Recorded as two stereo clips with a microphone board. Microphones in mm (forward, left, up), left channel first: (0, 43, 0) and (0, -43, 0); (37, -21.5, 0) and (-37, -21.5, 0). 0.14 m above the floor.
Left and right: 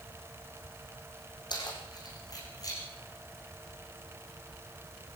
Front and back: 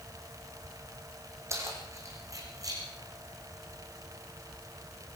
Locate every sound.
1.5 s keys jangling: 130° left, 6 m; by 2.8 s 140° left, 7 m